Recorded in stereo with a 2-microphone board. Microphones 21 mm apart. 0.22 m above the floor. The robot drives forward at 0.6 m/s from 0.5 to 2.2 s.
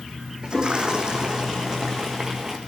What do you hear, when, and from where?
0.4 s a toilet flushing: 45° right (ahead or behind), 1.8 m; by 2.6 s 30° right (ahead or behind), 2.5 m